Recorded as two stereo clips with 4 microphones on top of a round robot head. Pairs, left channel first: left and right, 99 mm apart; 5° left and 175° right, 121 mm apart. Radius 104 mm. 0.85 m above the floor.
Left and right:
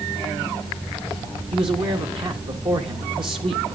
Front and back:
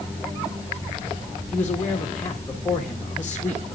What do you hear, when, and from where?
1.5 s a man speaking: 75° right, 1.9 m